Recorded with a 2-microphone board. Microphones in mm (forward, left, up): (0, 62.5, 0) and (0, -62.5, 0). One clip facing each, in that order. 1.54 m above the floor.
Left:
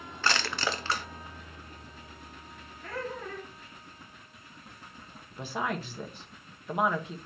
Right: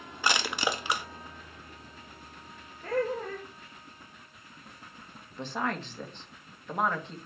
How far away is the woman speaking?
About 1.6 m.